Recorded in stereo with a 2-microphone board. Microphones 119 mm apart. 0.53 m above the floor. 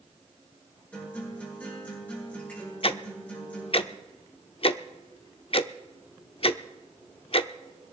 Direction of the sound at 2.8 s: 50° left (ahead or behind).